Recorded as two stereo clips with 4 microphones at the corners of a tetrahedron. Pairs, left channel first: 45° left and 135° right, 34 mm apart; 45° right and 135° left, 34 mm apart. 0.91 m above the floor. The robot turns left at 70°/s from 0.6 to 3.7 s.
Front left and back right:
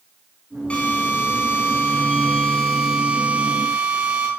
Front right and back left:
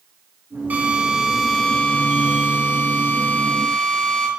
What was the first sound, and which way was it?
A drill, 100° left.